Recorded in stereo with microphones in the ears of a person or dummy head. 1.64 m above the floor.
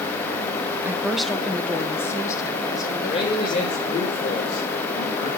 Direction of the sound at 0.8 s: 5° right (ahead or behind).